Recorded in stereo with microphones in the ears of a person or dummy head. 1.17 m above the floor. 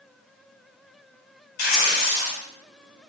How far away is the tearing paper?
About 2 m.